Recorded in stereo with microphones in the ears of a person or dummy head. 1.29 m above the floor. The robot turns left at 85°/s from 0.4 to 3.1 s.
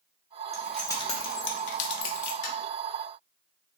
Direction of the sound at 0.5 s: 20° right (ahead or behind).